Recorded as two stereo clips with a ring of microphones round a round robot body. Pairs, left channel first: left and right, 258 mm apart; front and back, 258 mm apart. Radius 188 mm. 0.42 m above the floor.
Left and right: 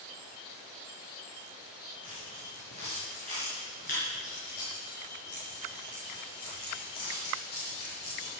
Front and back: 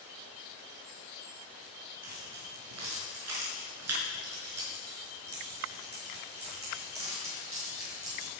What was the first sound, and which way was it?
Keys jangling, 165° left.